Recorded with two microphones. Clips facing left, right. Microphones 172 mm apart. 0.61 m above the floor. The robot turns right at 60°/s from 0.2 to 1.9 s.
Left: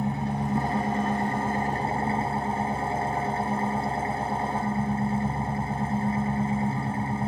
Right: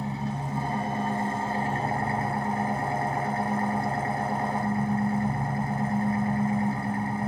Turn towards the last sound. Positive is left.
turn(degrees=155)